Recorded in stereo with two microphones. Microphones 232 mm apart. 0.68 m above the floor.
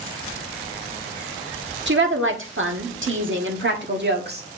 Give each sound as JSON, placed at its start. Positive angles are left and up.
{"t": 1.9, "sound": "a woman speaking", "side_deg": -50, "distance_m": 1.6}